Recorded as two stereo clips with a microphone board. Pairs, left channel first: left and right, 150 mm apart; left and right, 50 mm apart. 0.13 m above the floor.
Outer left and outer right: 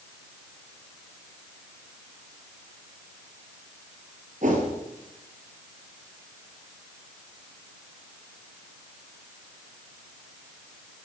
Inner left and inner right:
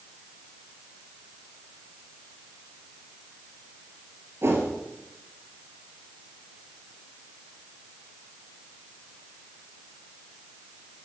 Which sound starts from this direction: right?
A whoosh, at 4.4 s.